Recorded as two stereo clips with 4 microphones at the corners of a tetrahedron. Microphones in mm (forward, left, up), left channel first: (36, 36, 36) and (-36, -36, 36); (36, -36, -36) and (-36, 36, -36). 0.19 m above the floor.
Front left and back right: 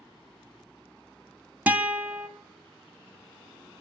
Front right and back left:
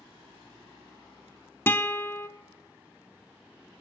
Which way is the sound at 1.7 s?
80° right.